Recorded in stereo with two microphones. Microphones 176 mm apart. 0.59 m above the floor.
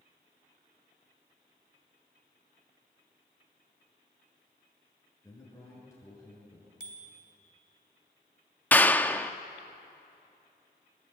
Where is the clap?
10° left (ahead or behind), 0.6 m.